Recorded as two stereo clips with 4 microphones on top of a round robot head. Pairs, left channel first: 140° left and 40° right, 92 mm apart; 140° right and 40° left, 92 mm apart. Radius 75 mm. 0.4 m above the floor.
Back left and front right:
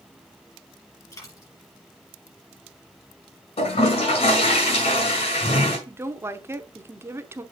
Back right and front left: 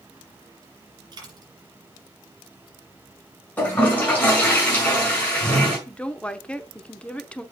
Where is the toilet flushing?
145° left, 5 m.